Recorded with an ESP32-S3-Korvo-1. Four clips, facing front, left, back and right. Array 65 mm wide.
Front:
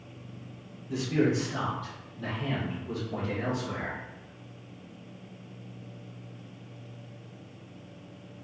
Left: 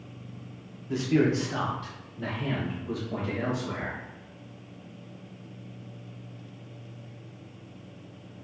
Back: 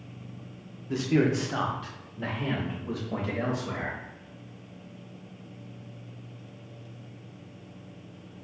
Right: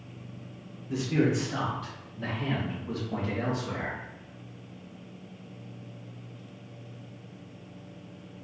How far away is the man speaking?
About 0.8 m.